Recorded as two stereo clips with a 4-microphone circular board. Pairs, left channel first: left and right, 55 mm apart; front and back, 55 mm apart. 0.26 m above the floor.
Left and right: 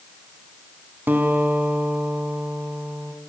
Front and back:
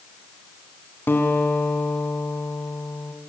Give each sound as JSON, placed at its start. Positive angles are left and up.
{"t": 1.1, "sound": "a guitar", "azimuth_deg": -45, "distance_m": 2.5}